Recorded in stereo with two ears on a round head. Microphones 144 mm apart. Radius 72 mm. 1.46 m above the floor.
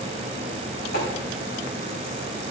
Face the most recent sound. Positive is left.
turn(degrees=60)  # may be behind; listen again after turning